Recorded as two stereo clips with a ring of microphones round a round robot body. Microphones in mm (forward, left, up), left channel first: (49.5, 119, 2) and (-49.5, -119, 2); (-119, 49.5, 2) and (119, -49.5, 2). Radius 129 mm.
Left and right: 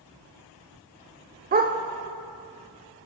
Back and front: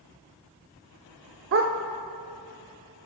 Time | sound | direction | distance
1.5 | a dog barking | 60° right | 0.9 m